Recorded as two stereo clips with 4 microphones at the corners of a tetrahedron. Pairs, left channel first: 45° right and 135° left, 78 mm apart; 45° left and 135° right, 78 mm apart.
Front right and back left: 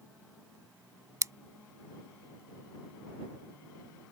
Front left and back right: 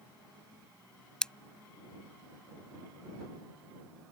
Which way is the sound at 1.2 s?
120° left.